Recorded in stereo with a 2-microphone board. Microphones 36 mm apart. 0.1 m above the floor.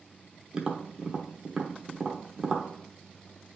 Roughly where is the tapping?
Centre.